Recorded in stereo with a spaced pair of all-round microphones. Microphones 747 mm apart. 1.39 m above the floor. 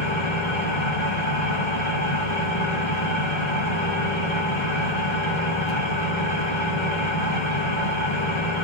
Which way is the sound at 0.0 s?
35° left (ahead or behind).